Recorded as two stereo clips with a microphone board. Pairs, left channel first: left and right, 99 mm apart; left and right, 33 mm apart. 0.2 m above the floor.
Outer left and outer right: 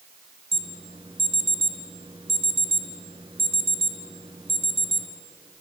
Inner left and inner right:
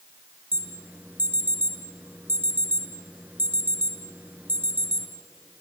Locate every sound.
0.5 s an alarm: 55° right (ahead or behind), 3.5 m